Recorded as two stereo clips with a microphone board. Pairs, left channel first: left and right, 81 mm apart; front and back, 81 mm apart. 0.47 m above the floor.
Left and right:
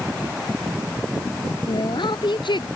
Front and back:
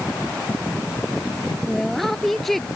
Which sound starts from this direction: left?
A woman speaking, at 1.7 s.